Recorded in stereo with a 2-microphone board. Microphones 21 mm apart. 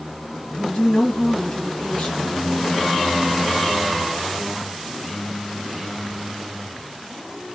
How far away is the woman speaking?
About 2 m.